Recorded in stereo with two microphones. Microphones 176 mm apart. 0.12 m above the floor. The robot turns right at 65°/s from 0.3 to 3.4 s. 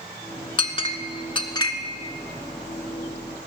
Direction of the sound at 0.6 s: 30° left (ahead or behind).